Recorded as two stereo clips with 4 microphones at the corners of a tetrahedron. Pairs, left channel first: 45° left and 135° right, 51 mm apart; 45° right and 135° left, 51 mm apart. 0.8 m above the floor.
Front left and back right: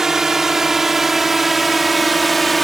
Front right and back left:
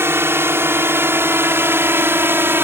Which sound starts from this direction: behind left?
A drone, at 0.0 s.